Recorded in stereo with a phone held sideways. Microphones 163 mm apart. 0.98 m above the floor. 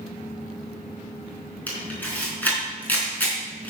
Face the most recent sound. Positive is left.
turn(degrees=10)  # may be behind; listen again after turning